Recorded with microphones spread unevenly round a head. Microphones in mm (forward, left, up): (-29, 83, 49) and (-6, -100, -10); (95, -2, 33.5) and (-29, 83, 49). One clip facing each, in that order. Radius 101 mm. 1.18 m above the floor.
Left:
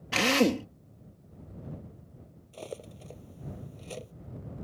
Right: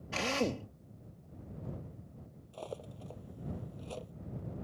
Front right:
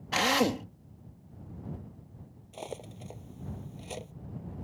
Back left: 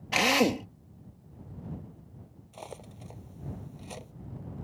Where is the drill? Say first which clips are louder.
Left 9 dB, back left 2 dB; 70° left.